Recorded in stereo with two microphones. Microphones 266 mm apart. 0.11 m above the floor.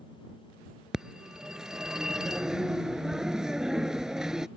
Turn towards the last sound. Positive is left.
turn(degrees=0)  # may be behind; listen again after turning